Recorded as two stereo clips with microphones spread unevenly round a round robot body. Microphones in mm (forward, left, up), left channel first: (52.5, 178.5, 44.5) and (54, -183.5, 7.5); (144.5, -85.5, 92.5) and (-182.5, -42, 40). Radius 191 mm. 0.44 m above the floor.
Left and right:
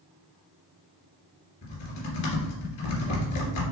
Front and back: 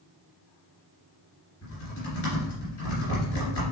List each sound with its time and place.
1.6 s typing on a keyboard: 45° left, 3 m